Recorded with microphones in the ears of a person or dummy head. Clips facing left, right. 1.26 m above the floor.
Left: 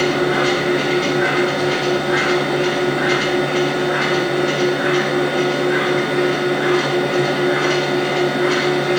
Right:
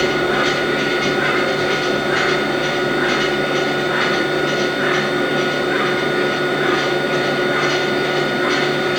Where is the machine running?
25° right (ahead or behind), 0.9 m.